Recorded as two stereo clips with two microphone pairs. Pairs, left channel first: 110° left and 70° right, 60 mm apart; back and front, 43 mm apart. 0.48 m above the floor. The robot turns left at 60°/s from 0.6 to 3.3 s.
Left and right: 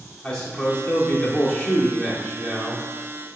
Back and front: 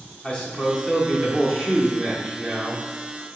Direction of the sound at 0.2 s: 165° left.